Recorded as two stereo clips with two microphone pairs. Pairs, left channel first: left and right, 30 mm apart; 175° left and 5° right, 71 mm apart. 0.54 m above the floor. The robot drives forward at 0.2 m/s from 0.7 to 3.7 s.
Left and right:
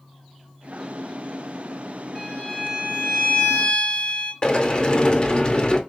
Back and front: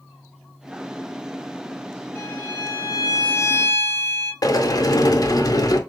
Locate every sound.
2.1 s a violin: 110° left, 3 m; by 4.3 s 120° left, 3 m
4.4 s a sliding door: 150° left, 0.5 m